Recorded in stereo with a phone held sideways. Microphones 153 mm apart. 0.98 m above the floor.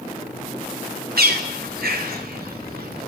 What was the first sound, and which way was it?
A bird, 80° right.